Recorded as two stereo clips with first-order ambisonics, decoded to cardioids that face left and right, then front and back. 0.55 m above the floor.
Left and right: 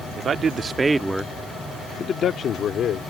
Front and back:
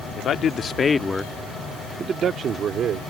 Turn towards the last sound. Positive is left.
turn(degrees=135)